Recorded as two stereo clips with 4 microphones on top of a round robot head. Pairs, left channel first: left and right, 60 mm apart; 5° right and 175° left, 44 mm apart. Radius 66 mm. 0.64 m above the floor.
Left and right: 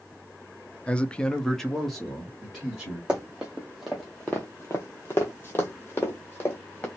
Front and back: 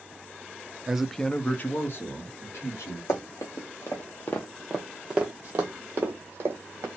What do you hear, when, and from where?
0.9 s a man speaking: 125° left, 0.5 m; by 3.0 s 5° right, 1.5 m
3.1 s running footsteps: 15° right, 1.1 m; by 6.9 s 145° left, 1.4 m